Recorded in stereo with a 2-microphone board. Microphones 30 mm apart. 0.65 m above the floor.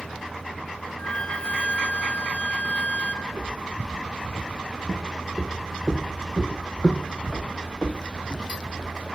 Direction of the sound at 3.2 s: 45° right (ahead or behind).